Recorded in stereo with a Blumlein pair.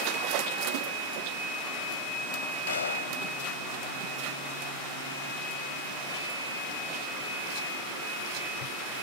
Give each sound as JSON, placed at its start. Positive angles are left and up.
{"t": 2.7, "sound": "a gunshot", "azimuth_deg": 65}